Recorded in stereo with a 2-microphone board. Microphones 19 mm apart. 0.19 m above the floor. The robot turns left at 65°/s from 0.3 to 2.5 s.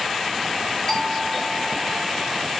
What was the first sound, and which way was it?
A doorbell, 30° left.